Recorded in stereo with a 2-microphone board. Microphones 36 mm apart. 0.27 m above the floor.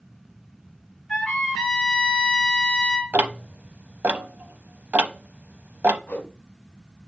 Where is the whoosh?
50° left (ahead or behind), 1.8 m.